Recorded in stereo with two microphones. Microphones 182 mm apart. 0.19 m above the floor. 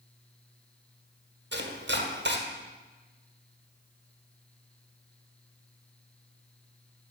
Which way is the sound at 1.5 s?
80° right.